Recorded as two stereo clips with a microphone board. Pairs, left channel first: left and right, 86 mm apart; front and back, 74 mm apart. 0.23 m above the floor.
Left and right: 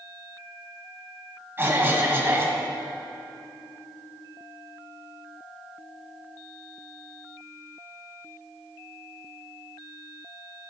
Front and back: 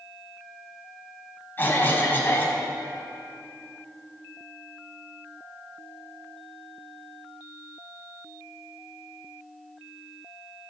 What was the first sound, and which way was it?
A cough, 45° right.